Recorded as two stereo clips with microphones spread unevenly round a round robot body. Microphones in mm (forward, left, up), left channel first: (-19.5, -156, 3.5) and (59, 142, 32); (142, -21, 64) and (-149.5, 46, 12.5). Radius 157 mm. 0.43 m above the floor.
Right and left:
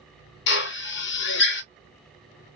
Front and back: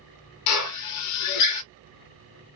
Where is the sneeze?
No sneeze in this recording.